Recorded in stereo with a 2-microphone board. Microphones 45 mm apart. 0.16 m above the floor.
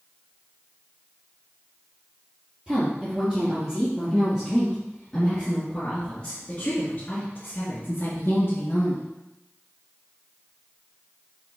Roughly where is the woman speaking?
Centre.